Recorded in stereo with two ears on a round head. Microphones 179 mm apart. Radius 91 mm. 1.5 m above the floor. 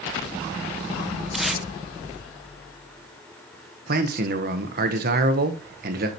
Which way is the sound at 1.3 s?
Centre (ahead or behind).